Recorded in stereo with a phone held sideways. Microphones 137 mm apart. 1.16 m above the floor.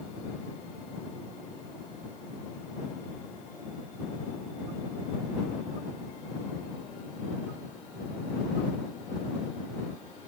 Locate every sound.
Only background noise.